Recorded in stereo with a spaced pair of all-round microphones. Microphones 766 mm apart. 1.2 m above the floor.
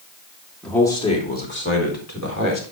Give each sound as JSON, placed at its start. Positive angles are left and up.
{"t": 0.6, "sound": "a man speaking", "side_deg": 0, "distance_m": 2.5}